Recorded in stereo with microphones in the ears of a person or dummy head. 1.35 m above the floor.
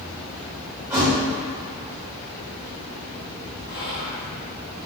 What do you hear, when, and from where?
0.9 s a thud: 10° right (ahead or behind), 1.0 m
3.7 s whispering: 25° left (ahead or behind), 1.2 m